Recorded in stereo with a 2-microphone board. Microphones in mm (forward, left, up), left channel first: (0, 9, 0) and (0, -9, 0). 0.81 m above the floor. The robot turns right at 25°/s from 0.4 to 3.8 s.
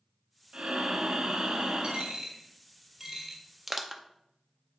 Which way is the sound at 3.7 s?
15° right (ahead or behind).